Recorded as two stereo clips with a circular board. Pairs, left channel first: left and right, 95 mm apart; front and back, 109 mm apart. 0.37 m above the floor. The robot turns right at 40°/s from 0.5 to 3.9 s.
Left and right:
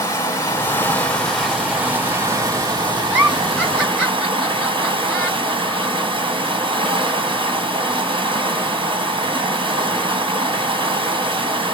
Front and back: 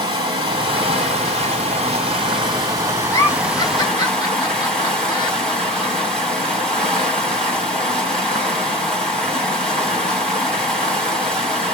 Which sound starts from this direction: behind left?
Running water, at 0.0 s.